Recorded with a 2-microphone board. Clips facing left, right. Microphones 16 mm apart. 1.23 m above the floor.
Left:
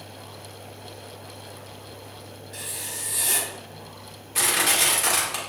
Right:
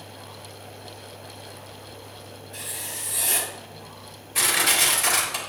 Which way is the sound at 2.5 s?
45° left (ahead or behind).